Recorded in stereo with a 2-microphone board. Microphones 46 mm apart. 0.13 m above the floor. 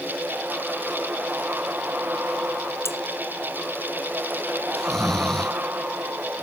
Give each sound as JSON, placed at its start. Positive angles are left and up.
{"t": 2.9, "sound": "cutlery clinking", "side_deg": 75}
{"t": 4.7, "sound": "snoring", "side_deg": 5}